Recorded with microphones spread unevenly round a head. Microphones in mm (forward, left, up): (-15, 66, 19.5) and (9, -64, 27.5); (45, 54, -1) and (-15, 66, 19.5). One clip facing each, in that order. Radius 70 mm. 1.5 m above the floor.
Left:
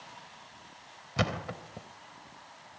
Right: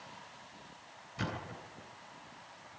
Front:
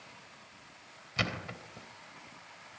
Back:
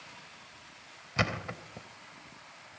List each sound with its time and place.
1.2 s a thud: 115° left, 3 m